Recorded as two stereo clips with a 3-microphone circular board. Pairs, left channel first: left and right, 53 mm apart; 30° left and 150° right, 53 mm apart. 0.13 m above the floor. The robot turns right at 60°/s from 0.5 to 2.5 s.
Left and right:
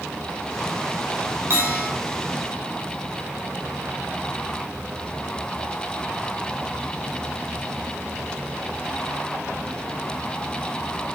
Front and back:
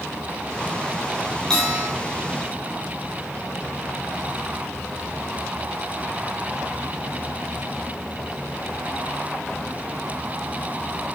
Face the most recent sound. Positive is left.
turn(degrees=10)